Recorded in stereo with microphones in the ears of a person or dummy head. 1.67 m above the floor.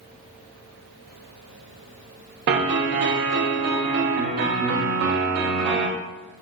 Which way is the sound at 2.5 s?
55° right (ahead or behind).